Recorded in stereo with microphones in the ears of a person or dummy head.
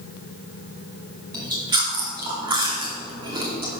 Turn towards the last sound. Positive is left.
turn(degrees=-25)  # may be behind; listen again after turning